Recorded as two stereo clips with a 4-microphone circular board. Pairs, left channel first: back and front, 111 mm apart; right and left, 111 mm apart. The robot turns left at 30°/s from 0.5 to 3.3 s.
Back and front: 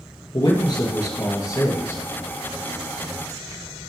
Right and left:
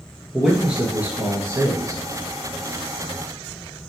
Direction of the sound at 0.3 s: 170° left.